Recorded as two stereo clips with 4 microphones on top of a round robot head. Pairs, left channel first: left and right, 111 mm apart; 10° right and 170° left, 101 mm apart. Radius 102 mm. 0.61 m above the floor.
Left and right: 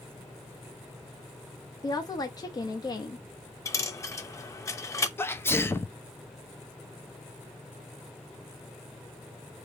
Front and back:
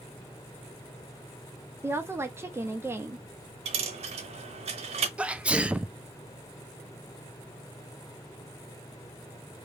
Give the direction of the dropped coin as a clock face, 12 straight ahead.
7 o'clock.